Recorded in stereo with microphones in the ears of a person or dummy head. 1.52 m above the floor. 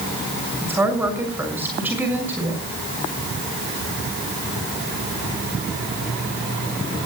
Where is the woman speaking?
15° right (ahead or behind), 6 m.